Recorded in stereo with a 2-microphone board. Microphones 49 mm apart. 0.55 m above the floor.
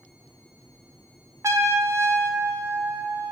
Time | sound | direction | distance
1.4 | a trumpet | 70° right (ahead or behind) | 0.6 m